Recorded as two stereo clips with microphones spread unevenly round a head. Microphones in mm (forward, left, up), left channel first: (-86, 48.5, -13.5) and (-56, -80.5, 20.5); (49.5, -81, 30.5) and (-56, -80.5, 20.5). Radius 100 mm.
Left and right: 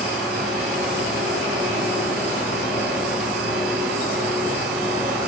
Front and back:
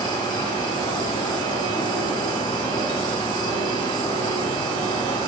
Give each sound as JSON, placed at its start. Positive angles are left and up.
{"t": 0.0, "sound": "an insect", "azimuth_deg": -50, "distance_m": 1.7}